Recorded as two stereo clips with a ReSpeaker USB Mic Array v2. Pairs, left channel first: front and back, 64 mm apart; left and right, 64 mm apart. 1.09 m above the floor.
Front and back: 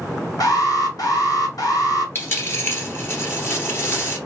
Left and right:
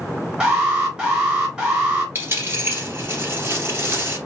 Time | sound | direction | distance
0.4 | an alarm | 15° right | 2.5 m
2.1 | a dropped coin | 40° right | 1.9 m